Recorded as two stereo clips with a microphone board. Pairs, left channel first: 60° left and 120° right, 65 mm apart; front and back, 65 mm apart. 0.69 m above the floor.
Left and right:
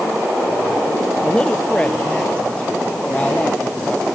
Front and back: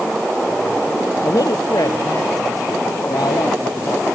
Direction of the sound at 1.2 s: 15° right.